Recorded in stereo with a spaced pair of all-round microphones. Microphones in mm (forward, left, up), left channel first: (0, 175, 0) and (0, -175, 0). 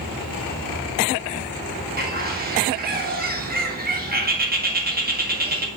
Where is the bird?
25° right (ahead or behind), 1.2 m.